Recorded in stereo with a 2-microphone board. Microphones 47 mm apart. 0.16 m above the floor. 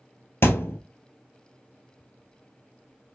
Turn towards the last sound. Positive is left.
turn(degrees=65)  # may be behind; listen again after turning